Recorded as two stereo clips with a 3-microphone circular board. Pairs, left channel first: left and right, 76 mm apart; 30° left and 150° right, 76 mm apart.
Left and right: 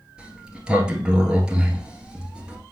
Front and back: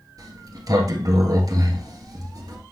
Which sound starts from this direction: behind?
A sliding door, at 0.2 s.